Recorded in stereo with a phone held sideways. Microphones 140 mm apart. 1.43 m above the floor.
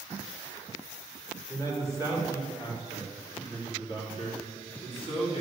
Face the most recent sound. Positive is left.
turn(degrees=45)  # may be behind; listen again after turning